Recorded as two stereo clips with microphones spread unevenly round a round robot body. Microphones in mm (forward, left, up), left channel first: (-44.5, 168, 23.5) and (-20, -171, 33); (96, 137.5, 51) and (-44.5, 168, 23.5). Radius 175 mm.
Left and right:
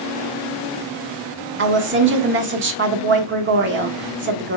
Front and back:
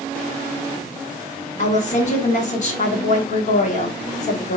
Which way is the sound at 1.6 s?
40° right.